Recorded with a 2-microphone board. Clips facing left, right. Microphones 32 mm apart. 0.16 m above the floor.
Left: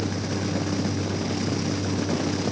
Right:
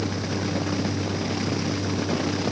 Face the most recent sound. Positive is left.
No sound to turn to.